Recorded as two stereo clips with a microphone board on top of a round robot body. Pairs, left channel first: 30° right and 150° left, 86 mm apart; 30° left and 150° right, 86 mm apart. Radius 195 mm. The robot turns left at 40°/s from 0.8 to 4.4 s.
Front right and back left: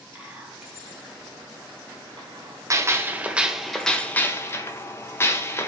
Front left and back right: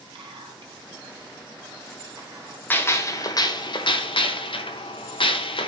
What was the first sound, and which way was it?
Whispering, 130° right.